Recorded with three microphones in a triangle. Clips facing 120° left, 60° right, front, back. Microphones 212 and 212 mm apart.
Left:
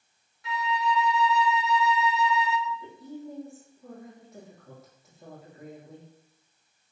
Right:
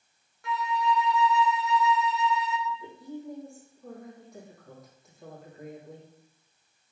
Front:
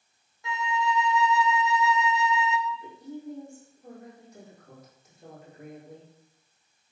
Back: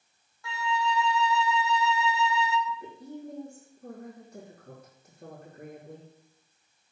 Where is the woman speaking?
155° right, 5.5 m.